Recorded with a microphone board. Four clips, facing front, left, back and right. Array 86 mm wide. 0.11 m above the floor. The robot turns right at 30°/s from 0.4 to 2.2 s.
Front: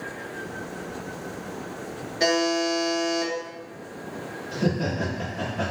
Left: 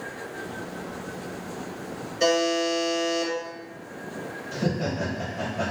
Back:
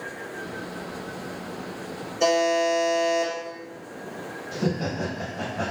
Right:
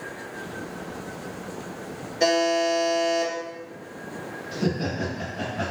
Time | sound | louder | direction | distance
2.2 | a buzzer | right 2 dB, back 2 dB | 10° right | 2.0 m
4.5 | laughter | right 1 dB, front 1 dB | 80° right | 1.4 m